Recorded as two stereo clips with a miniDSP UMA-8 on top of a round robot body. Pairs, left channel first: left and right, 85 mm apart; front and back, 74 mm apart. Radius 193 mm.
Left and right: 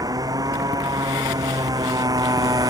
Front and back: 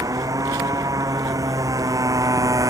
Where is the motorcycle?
135° right.